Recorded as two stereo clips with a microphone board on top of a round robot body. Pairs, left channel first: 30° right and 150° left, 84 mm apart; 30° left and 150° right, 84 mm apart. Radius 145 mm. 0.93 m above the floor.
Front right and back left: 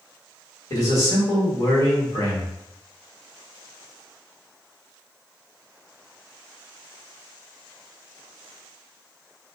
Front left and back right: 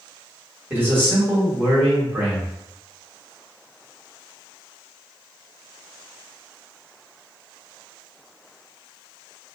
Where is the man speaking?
85° right, 1.5 m.